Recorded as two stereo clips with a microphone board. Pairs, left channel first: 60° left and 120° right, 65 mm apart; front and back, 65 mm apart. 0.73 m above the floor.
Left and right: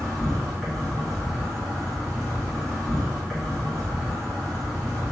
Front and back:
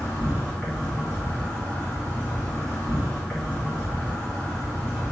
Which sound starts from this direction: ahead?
An insect, at 0.0 s.